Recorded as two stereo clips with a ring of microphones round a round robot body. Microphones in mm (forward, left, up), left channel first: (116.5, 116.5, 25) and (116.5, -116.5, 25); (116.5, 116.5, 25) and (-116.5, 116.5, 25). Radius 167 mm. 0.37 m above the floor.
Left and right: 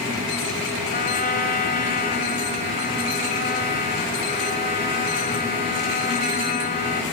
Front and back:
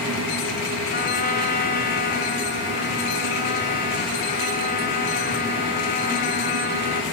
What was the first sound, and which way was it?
A trumpet, 45° left.